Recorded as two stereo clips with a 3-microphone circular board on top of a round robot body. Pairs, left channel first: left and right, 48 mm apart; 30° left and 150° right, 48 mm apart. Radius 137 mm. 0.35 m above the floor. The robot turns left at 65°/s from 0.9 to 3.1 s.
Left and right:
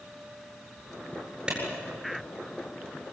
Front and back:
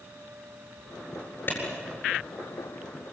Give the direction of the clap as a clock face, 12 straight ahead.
1 o'clock.